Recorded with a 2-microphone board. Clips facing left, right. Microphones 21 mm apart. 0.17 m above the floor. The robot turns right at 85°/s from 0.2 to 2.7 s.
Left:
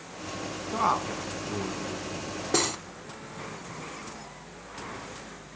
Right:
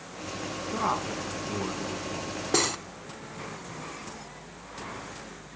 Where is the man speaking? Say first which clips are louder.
Left 3 dB; 20° left (ahead or behind), 1.2 m; by 2.3 s 30° right (ahead or behind), 1.2 m.